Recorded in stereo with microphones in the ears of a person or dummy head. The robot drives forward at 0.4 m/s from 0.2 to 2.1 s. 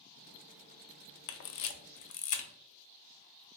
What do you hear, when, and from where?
1.3 s a camera shutter: 60° left (ahead or behind), 0.5 m